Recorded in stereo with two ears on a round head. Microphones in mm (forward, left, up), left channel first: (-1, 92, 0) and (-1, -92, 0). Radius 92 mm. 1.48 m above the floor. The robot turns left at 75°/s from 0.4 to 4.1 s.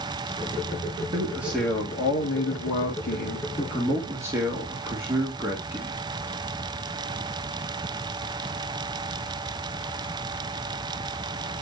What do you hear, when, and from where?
1.1 s a man speaking: 150° right, 2.0 m; by 6.0 s 15° right, 2.0 m